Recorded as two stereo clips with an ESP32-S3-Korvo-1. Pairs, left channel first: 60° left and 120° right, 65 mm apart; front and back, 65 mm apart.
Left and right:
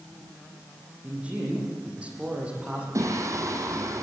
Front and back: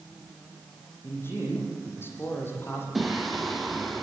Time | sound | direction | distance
1.0 | a man speaking | 50° right | 9 m
3.0 | singing | 90° right | 3.5 m